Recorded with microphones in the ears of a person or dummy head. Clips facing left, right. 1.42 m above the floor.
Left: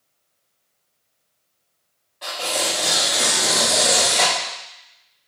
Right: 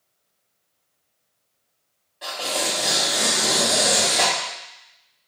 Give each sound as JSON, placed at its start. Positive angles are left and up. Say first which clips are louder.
{"t": 2.2, "sound": "tearing paper", "louder": "left 1 dB", "side_deg": -5, "distance_m": 1.1}